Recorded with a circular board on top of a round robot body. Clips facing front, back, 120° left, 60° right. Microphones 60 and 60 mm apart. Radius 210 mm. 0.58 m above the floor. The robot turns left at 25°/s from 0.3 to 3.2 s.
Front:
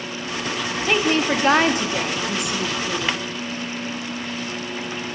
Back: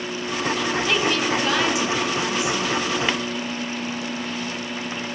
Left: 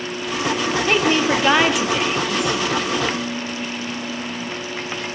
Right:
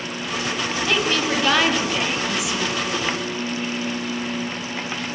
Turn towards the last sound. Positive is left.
turn(degrees=5)